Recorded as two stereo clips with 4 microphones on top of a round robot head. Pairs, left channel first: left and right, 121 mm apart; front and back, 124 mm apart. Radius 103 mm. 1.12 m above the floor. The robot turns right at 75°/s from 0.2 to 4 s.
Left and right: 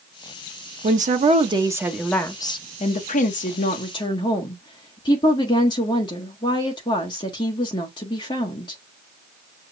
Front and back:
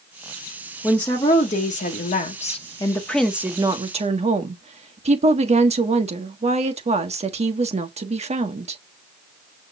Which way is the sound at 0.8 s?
90° right.